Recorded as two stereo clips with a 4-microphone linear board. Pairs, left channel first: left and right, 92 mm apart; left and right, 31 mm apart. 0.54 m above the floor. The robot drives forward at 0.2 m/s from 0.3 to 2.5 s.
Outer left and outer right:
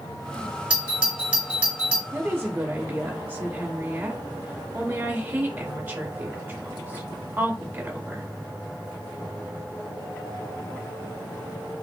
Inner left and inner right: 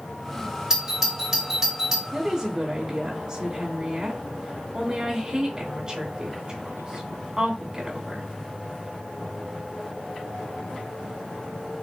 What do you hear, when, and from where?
0.7 s a doorbell: 15° right (ahead or behind), 1.2 m
2.1 s a woman speaking: 20° right (ahead or behind), 1.1 m